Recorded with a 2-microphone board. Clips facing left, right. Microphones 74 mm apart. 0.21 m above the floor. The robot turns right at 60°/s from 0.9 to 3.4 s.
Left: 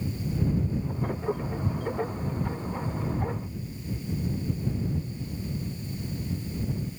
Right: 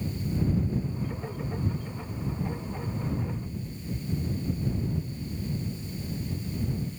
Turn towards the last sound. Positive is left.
No sound to turn to.